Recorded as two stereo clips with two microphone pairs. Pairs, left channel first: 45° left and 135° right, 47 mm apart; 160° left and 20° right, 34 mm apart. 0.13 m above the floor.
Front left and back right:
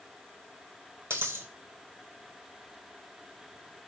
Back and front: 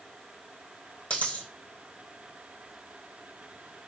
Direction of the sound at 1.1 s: 160° right.